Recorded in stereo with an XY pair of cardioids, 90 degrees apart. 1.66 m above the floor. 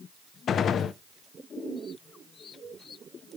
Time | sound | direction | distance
0.5 | a gunshot | 65° left | 0.5 m